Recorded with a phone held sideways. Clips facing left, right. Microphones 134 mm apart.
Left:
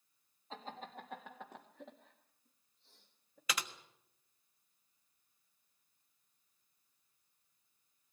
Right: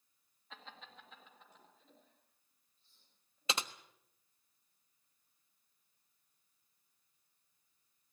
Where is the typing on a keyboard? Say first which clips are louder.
Right 2 dB; 25° right (ahead or behind), 1.2 m.